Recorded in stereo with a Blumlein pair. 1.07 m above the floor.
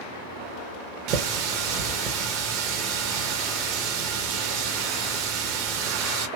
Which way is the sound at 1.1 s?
40° right.